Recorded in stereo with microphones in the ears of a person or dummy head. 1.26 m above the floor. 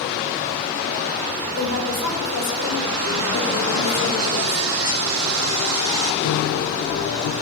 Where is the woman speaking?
70° left (ahead or behind), 5.5 m.